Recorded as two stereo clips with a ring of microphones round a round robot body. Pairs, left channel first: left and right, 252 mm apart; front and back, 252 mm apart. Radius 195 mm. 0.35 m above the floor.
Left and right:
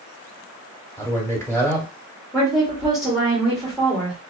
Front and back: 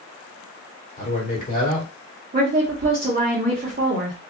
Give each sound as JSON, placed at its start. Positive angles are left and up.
{"t": 1.0, "sound": "a man speaking", "azimuth_deg": 20, "distance_m": 1.7}
{"t": 2.3, "sound": "a woman speaking", "azimuth_deg": 180, "distance_m": 1.2}